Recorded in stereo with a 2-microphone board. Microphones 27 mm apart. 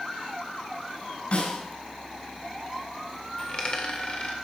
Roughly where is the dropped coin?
Left.